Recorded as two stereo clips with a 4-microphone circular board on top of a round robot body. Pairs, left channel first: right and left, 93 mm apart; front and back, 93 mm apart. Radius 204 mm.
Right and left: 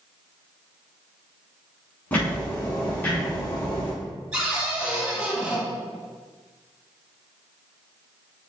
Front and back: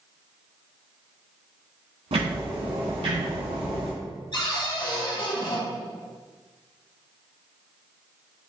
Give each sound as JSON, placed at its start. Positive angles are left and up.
{"t": 2.1, "sound": "ticking", "azimuth_deg": -160, "distance_m": 1.1}
{"t": 4.3, "sound": "a cupboard door", "azimuth_deg": 10, "distance_m": 1.9}